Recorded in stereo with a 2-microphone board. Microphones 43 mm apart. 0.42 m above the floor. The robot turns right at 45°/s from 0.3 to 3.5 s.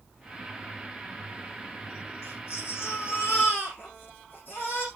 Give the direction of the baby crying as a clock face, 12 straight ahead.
10 o'clock.